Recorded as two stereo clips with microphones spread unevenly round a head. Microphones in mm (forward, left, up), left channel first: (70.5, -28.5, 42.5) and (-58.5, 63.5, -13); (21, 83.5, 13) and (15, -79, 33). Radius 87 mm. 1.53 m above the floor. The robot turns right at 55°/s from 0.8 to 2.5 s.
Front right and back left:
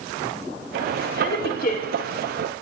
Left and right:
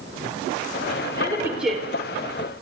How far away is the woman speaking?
About 5 m.